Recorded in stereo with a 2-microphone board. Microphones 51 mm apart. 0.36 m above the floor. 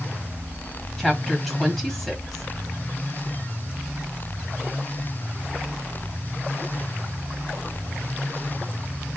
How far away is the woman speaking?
About 2 m.